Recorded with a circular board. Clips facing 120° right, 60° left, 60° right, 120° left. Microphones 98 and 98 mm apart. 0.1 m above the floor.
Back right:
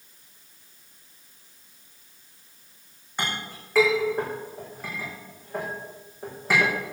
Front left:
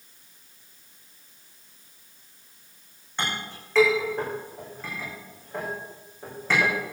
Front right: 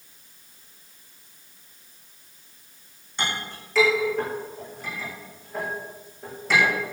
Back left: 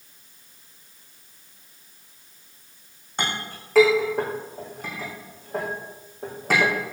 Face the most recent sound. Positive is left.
turn(degrees=160)